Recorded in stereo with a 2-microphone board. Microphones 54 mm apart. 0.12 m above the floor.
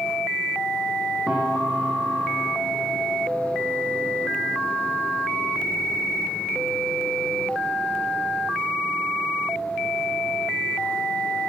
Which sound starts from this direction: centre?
A piano, at 1.3 s.